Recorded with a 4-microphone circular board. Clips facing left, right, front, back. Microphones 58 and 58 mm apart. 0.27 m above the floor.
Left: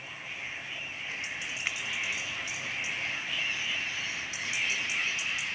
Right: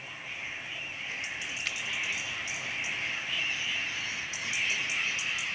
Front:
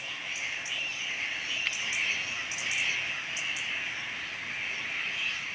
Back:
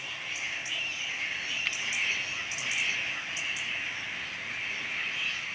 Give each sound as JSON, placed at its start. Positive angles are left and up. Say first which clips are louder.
{"t": 1.6, "sound": "a finger snap", "louder": "left 3 dB, even", "azimuth_deg": 90, "distance_m": 0.8}